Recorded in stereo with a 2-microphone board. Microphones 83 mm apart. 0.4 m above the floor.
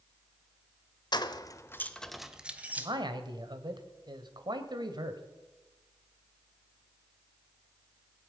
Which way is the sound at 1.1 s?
55° left (ahead or behind).